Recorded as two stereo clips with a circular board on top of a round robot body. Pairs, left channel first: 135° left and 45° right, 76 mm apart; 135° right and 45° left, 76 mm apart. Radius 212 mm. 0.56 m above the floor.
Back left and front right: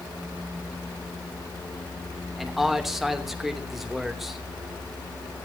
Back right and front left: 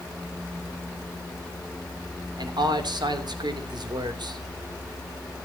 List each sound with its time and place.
2.4 s a man speaking: 45° left, 3 m